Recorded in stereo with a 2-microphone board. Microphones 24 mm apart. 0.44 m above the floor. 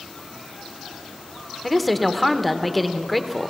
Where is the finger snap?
No finger snap in this recording.